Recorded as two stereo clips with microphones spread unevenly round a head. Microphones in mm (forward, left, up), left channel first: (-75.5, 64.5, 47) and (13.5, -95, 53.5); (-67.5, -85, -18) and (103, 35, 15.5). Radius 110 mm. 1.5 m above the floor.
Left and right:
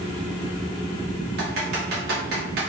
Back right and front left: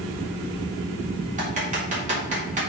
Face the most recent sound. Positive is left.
turn(degrees=-20)